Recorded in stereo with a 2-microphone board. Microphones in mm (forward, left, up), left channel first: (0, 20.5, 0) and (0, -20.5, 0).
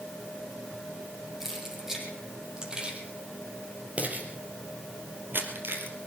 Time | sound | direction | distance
1.4 | keys jangling | 5° right (ahead or behind) | 4 m